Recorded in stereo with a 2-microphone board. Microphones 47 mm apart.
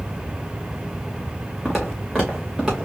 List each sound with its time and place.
1.6 s footsteps: 5° right (ahead or behind), 2 m; by 2.9 s 10° right (ahead or behind), 3 m